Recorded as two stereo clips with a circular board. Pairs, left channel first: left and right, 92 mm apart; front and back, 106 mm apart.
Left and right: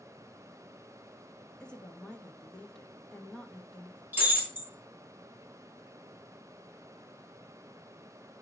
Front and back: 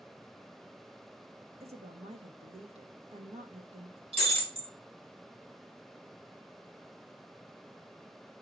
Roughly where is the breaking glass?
Behind.